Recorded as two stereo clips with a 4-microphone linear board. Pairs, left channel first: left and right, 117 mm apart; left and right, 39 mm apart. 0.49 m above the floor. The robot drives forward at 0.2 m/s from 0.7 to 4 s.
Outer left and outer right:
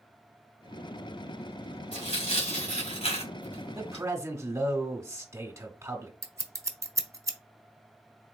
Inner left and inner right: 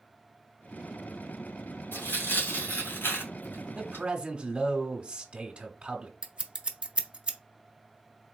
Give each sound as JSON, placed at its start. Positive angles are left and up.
{"t": 1.9, "sound": "tearing paper", "side_deg": 70, "distance_m": 2.0}
{"t": 3.8, "sound": "a man speaking", "side_deg": -25, "distance_m": 0.9}
{"t": 6.2, "sound": "scissors", "side_deg": -25, "distance_m": 0.6}